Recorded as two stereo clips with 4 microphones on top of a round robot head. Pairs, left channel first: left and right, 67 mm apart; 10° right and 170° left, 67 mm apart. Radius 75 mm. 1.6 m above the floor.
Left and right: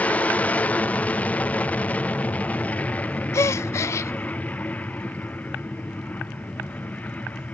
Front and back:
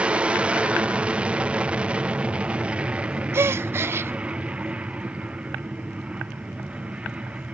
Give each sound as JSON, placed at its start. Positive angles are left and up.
{"t": 0.0, "sound": "an aircraft", "azimuth_deg": 125}
{"t": 3.3, "sound": "a gasp", "azimuth_deg": 130}